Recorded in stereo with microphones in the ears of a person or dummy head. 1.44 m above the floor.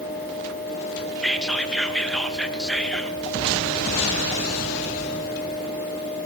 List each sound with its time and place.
1.2 s whispering: 5° left (ahead or behind), 0.9 m